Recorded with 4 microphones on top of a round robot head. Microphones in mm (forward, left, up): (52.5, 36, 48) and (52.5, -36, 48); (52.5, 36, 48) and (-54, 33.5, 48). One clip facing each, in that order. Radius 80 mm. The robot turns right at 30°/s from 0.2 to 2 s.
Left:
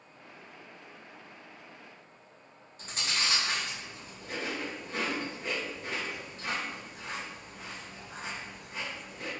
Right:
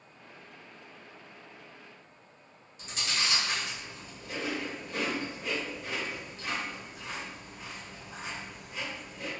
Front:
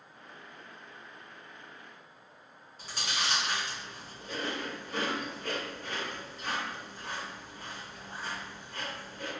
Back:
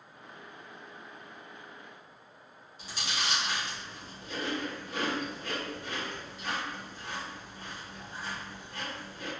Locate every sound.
2.8 s chewing: 45° left, 1.5 m